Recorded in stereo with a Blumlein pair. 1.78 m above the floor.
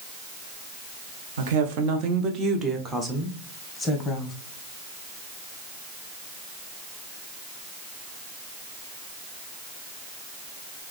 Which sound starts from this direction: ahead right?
A woman speaking, at 1.4 s.